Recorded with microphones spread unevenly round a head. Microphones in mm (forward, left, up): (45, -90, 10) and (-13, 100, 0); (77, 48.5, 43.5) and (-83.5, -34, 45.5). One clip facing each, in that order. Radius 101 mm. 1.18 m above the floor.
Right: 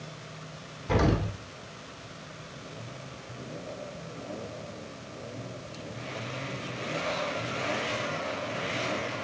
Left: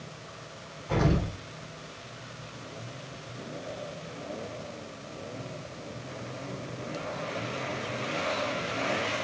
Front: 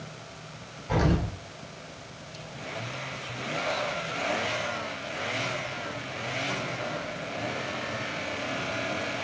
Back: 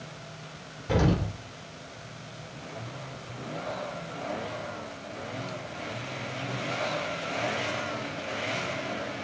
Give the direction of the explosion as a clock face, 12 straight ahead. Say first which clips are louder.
Right 1 dB, back 1 dB; 4 o'clock.